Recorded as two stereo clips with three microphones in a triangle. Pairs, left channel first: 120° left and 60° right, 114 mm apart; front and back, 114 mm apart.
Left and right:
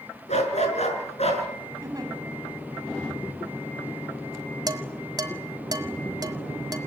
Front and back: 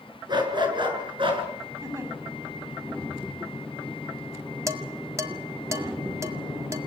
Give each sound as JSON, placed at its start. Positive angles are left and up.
{"t": 0.3, "sound": "a dog barking", "azimuth_deg": 130, "distance_m": 6.0}
{"t": 1.8, "sound": "a giggle", "azimuth_deg": -120, "distance_m": 7.0}
{"t": 4.7, "sound": "dishes clattering", "azimuth_deg": -115, "distance_m": 1.8}